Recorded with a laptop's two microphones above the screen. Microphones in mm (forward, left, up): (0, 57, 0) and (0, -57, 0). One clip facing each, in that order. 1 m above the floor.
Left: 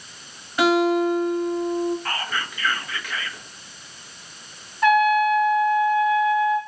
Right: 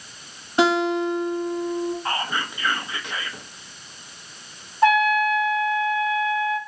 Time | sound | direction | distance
0.6 | a guitar | 30° right (ahead or behind) | 1.1 m
2.0 | whispering | 25° right (ahead or behind) | 0.7 m
4.8 | a trumpet | 30° right (ahead or behind) | 0.7 m